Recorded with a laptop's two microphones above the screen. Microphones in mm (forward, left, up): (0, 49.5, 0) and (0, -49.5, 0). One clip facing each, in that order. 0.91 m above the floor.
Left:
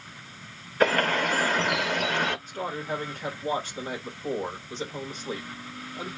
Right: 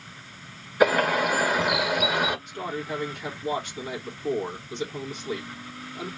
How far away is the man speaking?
About 1.6 m.